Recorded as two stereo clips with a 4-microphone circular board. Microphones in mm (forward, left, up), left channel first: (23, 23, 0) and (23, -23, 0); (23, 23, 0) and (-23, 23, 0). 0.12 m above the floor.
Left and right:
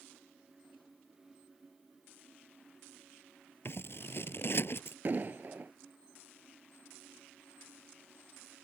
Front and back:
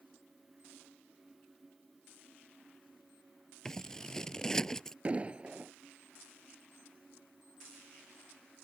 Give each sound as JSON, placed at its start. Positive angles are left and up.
{"t": 3.6, "sound": "scissors", "azimuth_deg": 75}
{"t": 5.0, "sound": "an explosion", "azimuth_deg": -125}